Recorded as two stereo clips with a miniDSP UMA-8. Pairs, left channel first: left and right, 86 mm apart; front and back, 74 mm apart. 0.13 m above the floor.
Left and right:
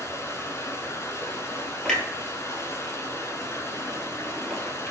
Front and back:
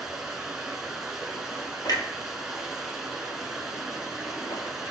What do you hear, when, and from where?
0.0 s running water: 100° left, 1.2 m
1.9 s a clunk: 10° left, 1.4 m